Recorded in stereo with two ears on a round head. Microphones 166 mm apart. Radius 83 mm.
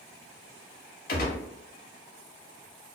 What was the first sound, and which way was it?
A gunshot, 50° left (ahead or behind).